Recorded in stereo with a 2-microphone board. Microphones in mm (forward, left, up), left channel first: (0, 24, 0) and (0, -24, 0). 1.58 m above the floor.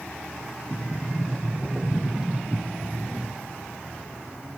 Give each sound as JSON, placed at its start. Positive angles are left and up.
{"t": 0.7, "sound": "a sliding door", "side_deg": -20, "distance_m": 0.7}